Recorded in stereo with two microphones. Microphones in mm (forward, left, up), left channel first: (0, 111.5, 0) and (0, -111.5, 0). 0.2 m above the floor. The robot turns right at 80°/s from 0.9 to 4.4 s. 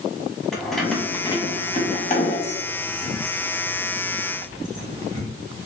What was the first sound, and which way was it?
Keys jangling, centre (ahead or behind).